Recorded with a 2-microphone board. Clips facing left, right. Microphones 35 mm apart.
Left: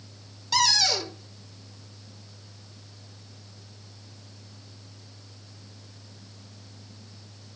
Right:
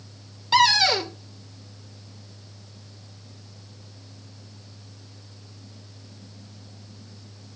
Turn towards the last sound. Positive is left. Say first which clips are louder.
# right 6 dB
turn(degrees=-35)  # may be behind; listen again after turning